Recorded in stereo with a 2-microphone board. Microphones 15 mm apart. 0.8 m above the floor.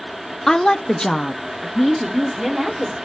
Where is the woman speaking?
40° left (ahead or behind), 0.9 m; by 3.0 s 5° left (ahead or behind), 2 m.